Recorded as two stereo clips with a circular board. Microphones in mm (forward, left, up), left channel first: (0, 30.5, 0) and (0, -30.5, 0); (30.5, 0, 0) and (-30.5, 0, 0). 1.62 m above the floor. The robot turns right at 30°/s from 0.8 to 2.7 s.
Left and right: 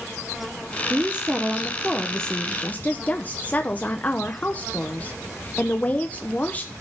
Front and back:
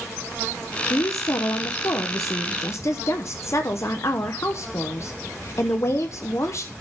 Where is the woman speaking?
25° right, 0.9 m; by 6.7 s 30° left, 0.9 m.